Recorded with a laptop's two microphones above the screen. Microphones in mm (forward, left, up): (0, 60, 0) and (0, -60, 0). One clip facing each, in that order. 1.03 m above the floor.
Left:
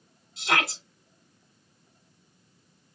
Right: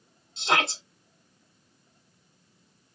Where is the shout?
25° right (ahead or behind), 1.9 m.